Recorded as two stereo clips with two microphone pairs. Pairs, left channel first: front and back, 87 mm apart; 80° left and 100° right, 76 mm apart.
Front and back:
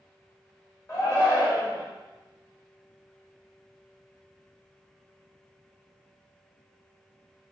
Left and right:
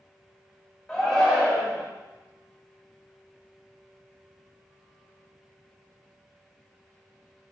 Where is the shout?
5° right, 1.3 m.